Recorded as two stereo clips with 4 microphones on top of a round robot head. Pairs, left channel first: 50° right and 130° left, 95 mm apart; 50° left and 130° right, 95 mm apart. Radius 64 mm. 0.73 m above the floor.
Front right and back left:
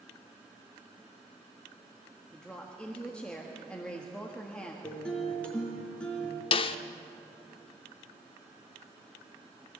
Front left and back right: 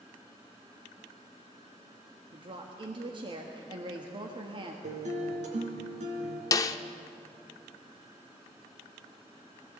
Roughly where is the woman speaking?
Behind right.